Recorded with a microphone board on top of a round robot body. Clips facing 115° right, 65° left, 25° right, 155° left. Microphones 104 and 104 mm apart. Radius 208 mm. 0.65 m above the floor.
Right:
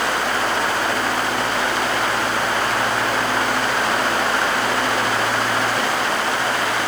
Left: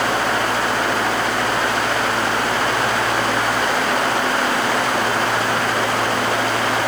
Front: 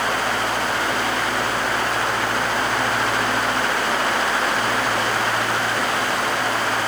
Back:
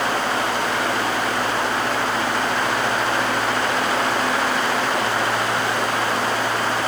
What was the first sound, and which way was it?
Only background noise.